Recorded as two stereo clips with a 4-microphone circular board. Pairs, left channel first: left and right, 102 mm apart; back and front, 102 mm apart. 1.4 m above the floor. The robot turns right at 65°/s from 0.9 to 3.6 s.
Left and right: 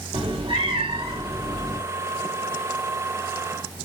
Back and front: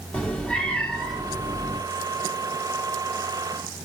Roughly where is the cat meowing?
Right.